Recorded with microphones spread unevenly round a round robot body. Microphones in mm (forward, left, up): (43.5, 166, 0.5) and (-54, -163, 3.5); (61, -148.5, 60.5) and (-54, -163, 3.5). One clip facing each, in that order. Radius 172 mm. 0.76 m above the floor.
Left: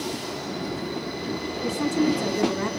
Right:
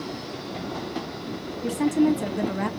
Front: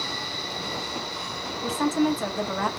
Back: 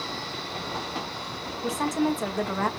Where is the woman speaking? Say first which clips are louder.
Right 3 dB, front 2 dB; 175° right, 0.8 m.